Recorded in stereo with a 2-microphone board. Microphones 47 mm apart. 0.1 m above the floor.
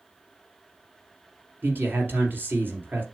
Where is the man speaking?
45° right (ahead or behind), 2.5 m.